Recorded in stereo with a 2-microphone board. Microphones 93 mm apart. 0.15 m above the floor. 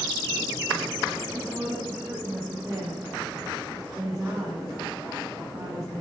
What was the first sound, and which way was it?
A woman speaking, 20° right (ahead or behind).